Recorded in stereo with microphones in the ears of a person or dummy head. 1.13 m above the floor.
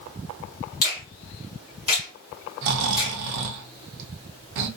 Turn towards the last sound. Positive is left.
turn(degrees=-60)  # may be behind; listen again after turning